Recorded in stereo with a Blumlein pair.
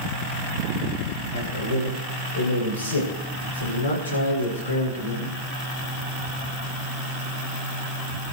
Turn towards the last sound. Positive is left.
turn(degrees=70)